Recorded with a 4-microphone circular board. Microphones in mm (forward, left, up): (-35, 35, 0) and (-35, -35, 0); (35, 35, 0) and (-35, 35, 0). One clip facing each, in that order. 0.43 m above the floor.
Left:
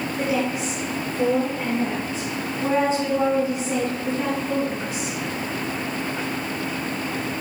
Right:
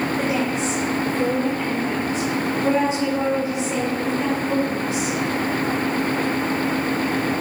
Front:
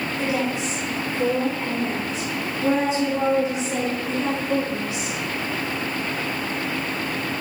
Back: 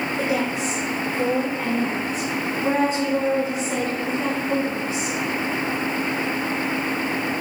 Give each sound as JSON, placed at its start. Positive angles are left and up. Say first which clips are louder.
{"t": 0.2, "sound": "a woman speaking", "louder": "right 2 dB, even", "azimuth_deg": 180, "distance_m": 1.4}